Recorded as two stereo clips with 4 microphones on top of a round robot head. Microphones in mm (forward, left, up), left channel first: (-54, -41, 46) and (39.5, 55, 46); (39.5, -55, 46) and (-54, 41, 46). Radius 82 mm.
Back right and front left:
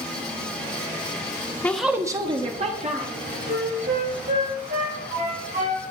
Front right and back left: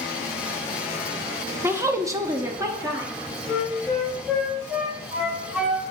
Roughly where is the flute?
Ahead left.